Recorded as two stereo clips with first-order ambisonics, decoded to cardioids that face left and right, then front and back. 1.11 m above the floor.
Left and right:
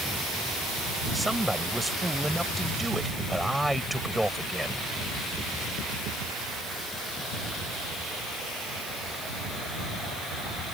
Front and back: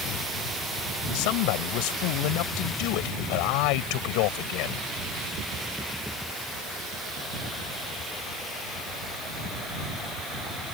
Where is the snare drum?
I don't hear a snare drum.